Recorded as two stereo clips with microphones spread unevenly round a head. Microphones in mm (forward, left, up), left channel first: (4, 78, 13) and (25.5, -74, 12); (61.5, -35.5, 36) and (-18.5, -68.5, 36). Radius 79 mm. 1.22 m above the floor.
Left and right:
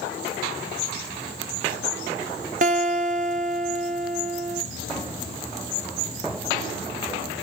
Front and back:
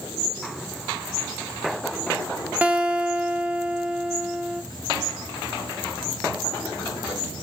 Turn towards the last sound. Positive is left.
turn(degrees=-90)